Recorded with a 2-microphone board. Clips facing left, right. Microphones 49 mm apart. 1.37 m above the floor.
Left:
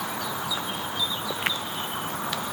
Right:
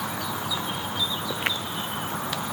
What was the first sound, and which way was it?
Only background noise.